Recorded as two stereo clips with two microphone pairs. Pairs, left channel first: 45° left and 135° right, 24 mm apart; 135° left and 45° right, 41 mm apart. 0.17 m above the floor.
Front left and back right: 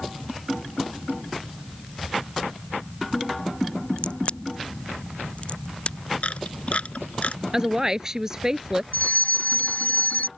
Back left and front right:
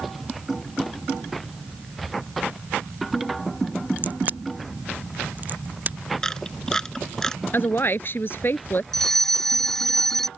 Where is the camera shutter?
55° left.